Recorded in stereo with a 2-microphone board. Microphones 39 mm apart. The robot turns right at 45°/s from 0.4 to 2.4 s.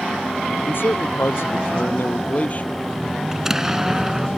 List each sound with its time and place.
0.7 s a man speaking: 60° left; by 2.8 s 140° left
3.3 s an explosion: 15° right (ahead or behind)